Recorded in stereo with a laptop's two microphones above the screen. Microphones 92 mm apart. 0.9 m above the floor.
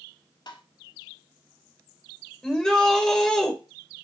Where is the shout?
5° left (ahead or behind), 3.5 m.